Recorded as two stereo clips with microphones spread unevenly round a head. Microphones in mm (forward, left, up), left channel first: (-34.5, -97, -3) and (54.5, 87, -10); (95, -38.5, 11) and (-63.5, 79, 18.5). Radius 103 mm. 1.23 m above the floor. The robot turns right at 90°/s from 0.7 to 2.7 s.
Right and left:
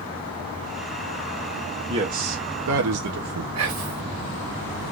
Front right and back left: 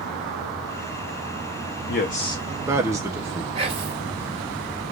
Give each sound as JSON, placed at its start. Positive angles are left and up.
{"t": 1.9, "sound": "a man speaking", "azimuth_deg": -5, "distance_m": 0.7}
{"t": 3.5, "sound": "whispering", "azimuth_deg": 80, "distance_m": 1.4}